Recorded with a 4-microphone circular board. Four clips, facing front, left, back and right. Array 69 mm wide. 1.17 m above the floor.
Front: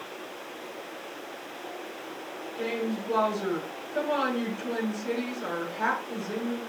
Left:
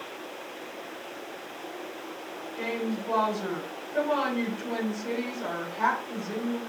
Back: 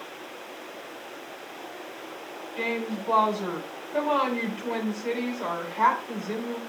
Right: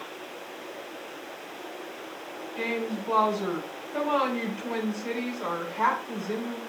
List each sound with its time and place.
2.6 s a woman speaking: 160° right, 9 m